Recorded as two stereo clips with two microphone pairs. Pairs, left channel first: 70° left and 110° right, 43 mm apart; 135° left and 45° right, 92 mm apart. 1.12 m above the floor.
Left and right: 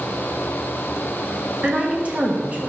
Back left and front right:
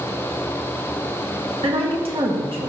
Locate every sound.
1.6 s a woman speaking: 55° right, 1.3 m